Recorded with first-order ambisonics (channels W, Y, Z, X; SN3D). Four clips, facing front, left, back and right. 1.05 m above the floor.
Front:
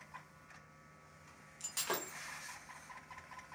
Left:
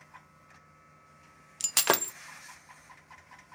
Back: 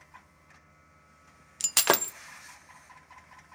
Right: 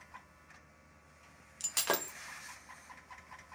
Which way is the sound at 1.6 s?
150° left.